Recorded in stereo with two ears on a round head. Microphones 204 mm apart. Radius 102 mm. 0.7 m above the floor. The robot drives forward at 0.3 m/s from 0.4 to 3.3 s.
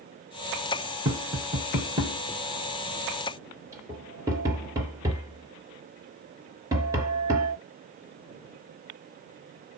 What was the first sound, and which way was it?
Tapping, 20° right (ahead or behind).